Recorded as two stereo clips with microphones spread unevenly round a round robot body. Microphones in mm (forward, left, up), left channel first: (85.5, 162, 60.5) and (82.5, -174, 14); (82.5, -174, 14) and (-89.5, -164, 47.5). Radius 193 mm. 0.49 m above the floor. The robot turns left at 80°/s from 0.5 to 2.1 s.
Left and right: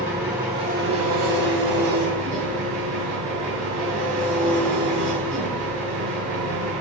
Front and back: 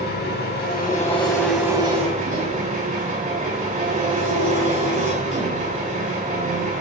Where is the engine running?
10° right, 3.5 m; by 6.8 s 135° right, 3.5 m.